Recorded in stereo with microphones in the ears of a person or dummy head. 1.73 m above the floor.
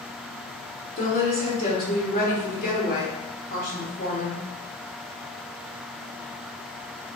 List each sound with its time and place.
1.0 s a woman speaking: 45° left (ahead or behind), 1.8 m